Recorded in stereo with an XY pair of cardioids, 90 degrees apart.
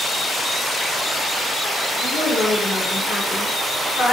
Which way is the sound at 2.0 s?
70° left.